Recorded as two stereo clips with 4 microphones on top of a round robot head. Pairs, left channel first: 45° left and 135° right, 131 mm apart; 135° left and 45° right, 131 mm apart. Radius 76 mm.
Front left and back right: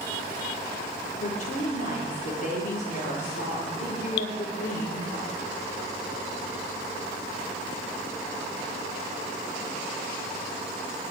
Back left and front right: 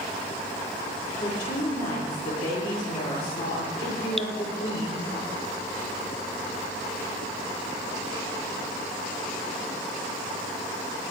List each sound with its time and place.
1.2 s a woman speaking: 80° left, 9.5 m
4.2 s dripping: 50° left, 0.6 m